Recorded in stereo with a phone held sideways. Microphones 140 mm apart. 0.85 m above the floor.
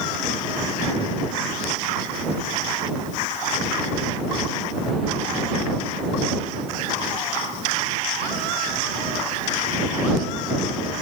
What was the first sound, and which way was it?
Only background noise.